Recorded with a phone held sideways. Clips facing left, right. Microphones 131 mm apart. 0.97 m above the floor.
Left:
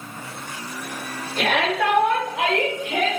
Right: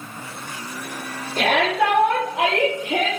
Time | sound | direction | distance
1.4 | a shout | 45° right (ahead or behind) | 2 m